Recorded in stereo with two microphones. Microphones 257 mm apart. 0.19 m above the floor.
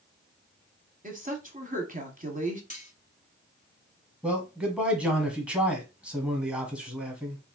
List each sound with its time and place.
1.0 s a woman speaking: 35° right (ahead or behind), 1.2 m
2.7 s cutlery clinking: 30° left (ahead or behind), 1.1 m
4.2 s a man speaking: 5° right (ahead or behind), 1.2 m